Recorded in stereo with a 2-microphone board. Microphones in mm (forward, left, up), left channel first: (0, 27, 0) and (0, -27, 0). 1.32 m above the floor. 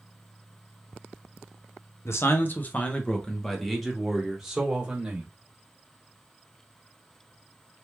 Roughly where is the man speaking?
Left.